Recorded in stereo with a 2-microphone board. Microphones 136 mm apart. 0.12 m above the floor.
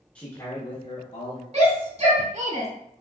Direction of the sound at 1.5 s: 50° right (ahead or behind).